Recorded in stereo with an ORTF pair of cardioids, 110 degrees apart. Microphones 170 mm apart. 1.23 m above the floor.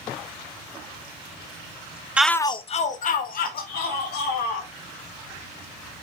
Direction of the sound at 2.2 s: 10° right.